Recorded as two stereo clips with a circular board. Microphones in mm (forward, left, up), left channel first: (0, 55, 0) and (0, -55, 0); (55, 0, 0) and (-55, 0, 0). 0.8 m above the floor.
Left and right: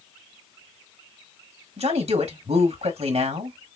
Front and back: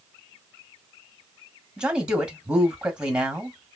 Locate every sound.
1.8 s a man speaking: 100° right, 1.5 m